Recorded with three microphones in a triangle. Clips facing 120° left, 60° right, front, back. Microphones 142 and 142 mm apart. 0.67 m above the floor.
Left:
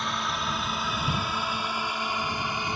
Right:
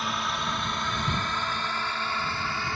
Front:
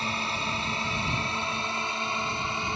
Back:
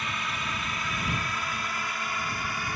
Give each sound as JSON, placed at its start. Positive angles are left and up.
{"t": 0.0, "sound": "a drone", "azimuth_deg": 30}